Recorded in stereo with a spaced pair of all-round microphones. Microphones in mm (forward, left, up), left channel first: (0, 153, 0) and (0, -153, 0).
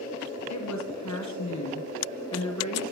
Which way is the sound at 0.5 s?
65° left (ahead or behind).